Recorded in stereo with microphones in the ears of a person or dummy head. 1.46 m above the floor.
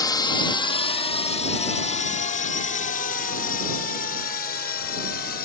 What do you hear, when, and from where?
0.0 s a drone: 20° left (ahead or behind); by 5.5 s 55° left (ahead or behind)